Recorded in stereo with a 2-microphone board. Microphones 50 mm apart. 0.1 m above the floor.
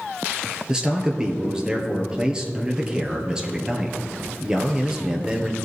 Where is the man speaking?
15° right (ahead or behind), 1.7 m.